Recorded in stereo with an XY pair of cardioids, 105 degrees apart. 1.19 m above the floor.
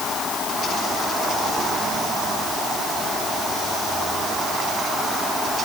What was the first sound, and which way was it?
Only background noise.